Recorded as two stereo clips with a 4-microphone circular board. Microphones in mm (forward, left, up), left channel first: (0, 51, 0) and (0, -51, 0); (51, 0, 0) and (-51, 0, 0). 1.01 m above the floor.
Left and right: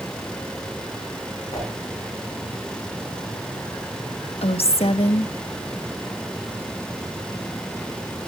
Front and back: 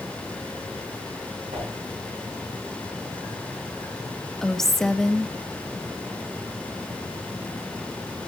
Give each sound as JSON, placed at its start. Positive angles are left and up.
{"t": 1.5, "sound": "a whoosh", "azimuth_deg": 145, "distance_m": 9.0}
{"t": 4.4, "sound": "a woman speaking", "azimuth_deg": 85, "distance_m": 1.4}